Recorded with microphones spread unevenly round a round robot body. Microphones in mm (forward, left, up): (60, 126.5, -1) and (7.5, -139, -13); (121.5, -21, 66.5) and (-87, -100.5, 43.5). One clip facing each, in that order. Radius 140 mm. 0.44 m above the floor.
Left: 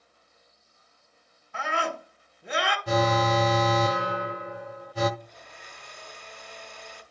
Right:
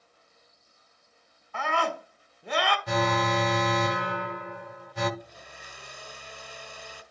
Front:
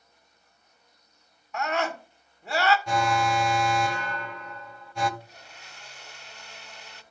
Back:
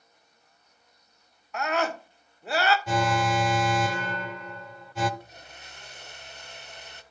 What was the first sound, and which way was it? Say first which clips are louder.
A scream: right 1 dB, back 1 dB; 125° left.